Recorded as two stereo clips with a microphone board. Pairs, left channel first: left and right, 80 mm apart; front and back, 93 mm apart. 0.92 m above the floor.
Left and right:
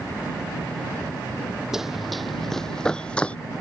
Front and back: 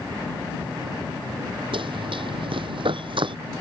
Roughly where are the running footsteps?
Behind.